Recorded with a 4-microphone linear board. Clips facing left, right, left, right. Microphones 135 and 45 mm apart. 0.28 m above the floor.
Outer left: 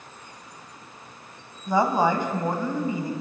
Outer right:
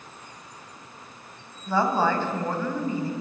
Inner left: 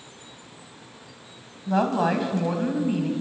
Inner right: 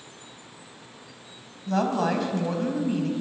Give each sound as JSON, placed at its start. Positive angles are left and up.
{"t": 1.7, "sound": "a woman speaking", "side_deg": 15, "distance_m": 2.0}